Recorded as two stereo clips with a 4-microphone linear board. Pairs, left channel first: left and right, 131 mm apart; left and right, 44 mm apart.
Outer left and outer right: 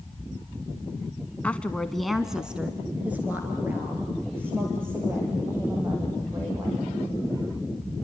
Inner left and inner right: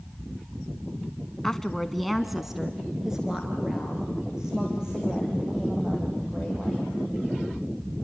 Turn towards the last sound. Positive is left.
turn(degrees=-20)  # may be behind; listen again after turning